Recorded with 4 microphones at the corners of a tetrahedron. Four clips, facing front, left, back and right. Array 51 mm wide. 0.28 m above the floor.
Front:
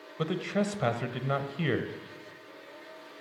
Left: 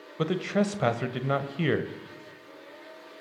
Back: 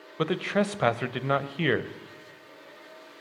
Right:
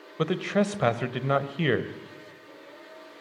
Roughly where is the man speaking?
Behind right.